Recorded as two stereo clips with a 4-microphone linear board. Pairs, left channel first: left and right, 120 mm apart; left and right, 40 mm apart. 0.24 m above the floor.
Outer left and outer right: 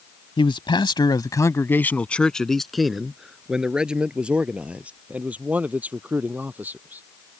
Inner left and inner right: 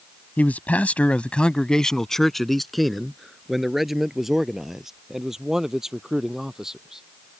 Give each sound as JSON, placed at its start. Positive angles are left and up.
{"t": 0.4, "sound": "a man speaking", "side_deg": 45}